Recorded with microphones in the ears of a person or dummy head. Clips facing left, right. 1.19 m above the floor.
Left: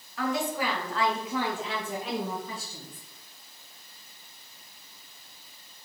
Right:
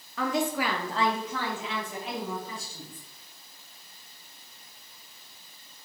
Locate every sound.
0.2 s a woman speaking: 60° right (ahead or behind), 0.9 m; by 3.1 s 65° left (ahead or behind), 1.5 m